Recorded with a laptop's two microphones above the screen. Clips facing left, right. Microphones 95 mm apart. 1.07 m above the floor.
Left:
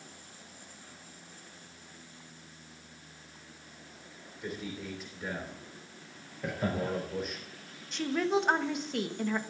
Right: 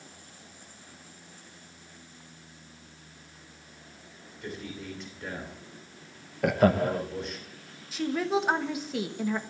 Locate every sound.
4.4 s a man speaking: 5° left (ahead or behind), 2.5 m
6.4 s laughter: 75° right (ahead or behind), 0.7 m
7.9 s a woman speaking: 5° right (ahead or behind), 1.3 m